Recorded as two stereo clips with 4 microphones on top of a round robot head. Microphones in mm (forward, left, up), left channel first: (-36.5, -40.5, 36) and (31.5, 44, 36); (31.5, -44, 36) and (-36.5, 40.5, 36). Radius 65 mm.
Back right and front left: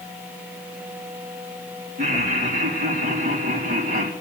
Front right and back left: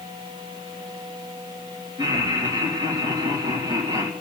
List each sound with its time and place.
2.0 s laughter: 70° left, 3.5 m